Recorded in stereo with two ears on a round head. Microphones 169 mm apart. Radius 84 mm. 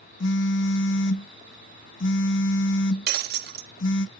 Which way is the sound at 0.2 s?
65° left (ahead or behind).